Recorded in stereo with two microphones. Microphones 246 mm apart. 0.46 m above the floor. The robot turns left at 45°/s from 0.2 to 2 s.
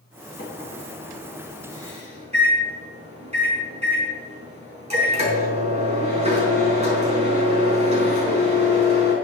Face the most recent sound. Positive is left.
turn(degrees=-25)